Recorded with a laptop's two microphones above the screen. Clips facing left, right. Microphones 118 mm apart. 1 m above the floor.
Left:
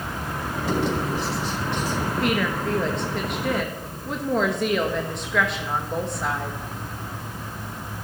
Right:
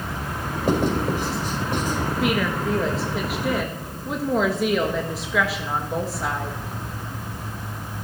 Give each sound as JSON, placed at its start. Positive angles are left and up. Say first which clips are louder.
{"t": 0.7, "sound": "writing", "louder": "right 3 dB", "side_deg": -45, "distance_m": 5.0}
{"t": 2.2, "sound": "a woman speaking", "louder": "right 1 dB", "side_deg": 0, "distance_m": 1.2}